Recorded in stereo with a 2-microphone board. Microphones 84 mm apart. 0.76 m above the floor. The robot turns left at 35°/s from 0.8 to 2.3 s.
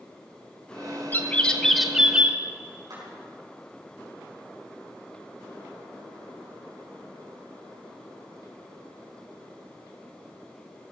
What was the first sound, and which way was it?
A bird, 25° left.